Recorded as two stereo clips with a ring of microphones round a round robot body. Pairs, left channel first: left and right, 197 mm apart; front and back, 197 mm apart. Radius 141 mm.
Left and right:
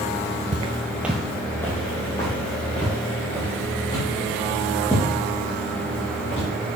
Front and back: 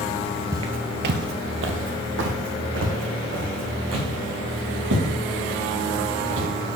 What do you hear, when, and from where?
0.5 s footsteps: 120° right, 0.5 m; by 6.5 s 160° left, 5.5 m